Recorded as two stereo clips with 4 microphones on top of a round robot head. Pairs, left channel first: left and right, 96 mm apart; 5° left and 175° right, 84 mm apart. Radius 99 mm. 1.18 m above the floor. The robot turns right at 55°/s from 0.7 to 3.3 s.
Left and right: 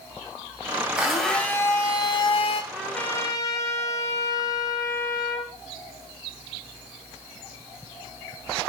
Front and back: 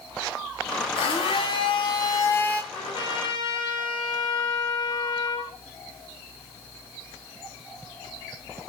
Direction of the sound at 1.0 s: 10° right.